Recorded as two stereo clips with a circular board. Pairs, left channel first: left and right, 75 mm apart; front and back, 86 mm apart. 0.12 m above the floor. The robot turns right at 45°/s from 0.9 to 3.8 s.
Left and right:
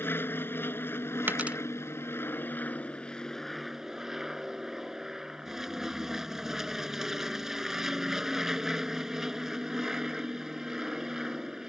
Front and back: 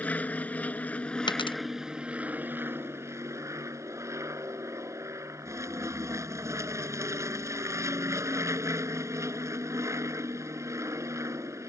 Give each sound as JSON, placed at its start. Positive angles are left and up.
{"t": 0.0, "sound": "an aircraft", "azimuth_deg": 60}
{"t": 1.3, "sound": "a dropped coin", "azimuth_deg": -25}